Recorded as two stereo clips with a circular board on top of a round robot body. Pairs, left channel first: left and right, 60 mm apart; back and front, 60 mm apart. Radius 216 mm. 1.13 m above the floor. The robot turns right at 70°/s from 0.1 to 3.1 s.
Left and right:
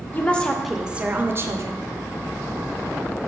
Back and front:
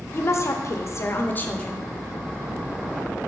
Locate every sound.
0.1 s a woman speaking: 145° left, 0.8 m; by 1.9 s 95° right, 0.8 m